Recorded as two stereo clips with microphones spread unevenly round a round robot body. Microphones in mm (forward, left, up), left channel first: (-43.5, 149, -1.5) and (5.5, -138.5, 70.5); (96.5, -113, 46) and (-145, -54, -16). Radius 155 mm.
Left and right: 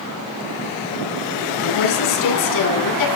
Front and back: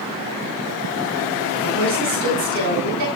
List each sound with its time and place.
1.6 s a woman speaking: 115° left, 8.5 m